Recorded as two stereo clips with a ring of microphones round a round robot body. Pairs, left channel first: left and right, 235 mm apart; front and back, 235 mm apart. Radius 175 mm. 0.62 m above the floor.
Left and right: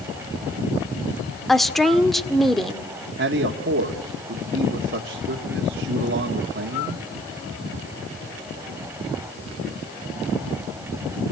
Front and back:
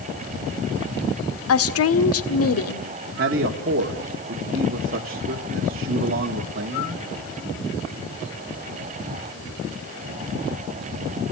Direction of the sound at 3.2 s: 135° right.